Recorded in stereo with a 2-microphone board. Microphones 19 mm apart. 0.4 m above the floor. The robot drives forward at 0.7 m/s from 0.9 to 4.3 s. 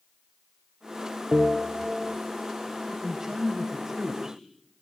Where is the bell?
45° right (ahead or behind), 4 m; by 2.2 s 55° right (ahead or behind), 3.5 m.